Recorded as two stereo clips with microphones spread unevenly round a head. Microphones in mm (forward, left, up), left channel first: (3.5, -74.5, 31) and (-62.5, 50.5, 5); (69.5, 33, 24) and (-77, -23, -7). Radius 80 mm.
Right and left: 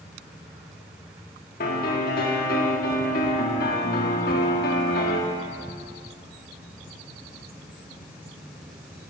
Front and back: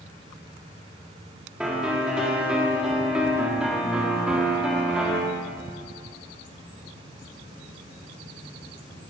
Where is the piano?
70° right, 1.9 m.